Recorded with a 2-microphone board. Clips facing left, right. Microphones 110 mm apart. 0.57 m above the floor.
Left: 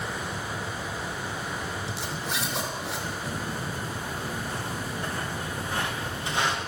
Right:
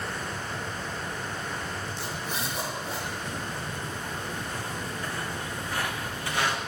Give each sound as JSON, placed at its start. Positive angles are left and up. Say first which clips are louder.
{"t": 1.9, "sound": "a zipper", "louder": "left 1 dB", "side_deg": 80, "distance_m": 4.5}
{"t": 3.2, "sound": "footsteps", "louder": "left 2 dB", "side_deg": 35, "distance_m": 6.0}